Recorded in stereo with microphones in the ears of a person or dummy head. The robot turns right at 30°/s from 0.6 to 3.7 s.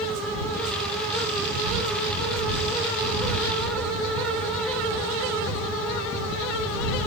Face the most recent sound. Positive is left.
No sound to turn to.